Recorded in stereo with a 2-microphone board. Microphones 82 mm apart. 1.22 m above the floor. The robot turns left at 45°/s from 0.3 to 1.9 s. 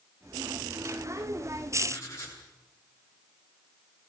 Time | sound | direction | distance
1.9 | writing | 35° left (ahead or behind) | 9 m